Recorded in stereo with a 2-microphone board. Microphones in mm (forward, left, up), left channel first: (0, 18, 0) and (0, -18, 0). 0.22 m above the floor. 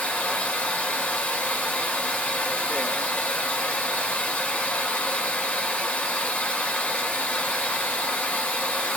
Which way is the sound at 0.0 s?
45° left (ahead or behind).